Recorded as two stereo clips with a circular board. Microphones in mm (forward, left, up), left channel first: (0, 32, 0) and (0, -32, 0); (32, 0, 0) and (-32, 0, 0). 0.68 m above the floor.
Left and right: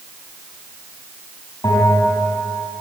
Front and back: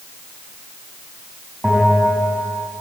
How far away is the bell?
About 6.5 m.